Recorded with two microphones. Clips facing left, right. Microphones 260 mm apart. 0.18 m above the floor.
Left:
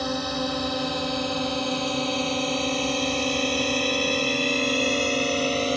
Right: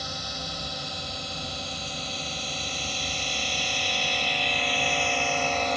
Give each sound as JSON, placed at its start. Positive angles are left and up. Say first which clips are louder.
{"t": 0.0, "sound": "a drone", "louder": "left 13 dB", "side_deg": 70}